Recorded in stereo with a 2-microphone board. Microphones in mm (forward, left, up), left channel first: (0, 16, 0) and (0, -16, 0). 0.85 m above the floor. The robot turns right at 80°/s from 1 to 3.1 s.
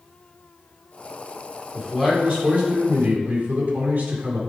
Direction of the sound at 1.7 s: 160° left.